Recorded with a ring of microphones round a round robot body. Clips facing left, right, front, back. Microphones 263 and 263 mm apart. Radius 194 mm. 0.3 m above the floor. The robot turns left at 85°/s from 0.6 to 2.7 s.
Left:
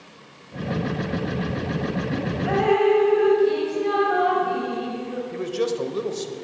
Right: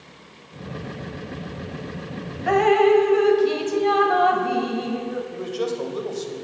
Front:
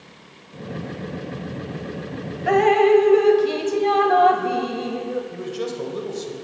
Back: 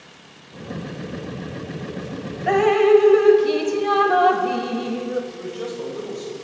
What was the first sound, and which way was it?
Dripping, 85° right.